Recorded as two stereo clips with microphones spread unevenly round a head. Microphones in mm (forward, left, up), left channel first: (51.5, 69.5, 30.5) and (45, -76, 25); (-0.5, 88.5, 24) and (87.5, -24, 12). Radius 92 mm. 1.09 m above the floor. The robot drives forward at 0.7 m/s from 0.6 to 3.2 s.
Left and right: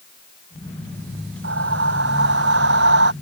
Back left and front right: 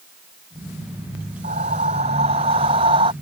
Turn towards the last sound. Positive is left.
turn(degrees=-120)